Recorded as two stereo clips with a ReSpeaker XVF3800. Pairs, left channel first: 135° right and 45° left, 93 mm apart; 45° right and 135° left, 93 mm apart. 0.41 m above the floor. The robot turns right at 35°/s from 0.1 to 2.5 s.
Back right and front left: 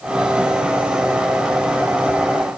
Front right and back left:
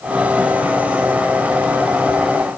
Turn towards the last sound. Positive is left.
No sound to turn to.